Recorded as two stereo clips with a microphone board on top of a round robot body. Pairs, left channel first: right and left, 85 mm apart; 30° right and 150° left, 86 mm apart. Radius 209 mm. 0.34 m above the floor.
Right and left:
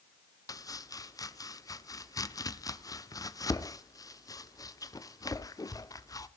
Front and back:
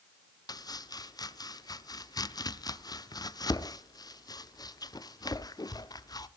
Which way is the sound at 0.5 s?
55° right.